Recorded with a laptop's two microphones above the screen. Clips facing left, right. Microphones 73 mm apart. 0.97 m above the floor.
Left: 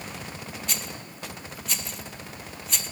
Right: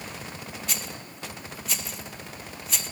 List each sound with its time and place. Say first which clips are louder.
0.7 s a rattle: even; centre (ahead or behind), 0.5 m